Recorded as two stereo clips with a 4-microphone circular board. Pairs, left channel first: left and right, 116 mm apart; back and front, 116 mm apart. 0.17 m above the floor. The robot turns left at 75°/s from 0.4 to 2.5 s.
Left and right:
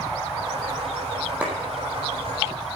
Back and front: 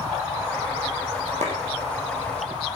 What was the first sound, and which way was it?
A clap, 10° right.